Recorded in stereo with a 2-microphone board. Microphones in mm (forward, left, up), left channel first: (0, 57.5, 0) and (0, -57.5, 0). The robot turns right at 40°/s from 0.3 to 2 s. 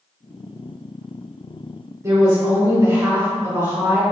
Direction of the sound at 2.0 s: 30° right (ahead or behind).